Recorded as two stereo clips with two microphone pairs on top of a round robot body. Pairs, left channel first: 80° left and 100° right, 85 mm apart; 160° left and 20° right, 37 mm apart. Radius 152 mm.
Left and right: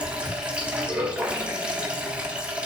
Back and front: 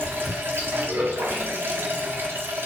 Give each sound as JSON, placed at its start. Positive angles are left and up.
{"t": 0.0, "sound": "running water", "azimuth_deg": -25, "distance_m": 1.5}